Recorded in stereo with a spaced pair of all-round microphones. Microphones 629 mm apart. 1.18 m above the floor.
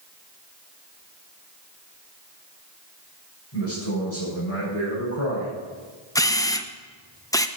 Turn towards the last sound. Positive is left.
turn(degrees=5)  # may be behind; listen again after turning